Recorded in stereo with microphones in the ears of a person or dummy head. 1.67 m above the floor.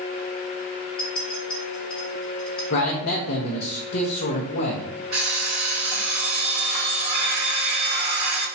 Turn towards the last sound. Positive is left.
turn(degrees=-35)  # may be behind; listen again after turning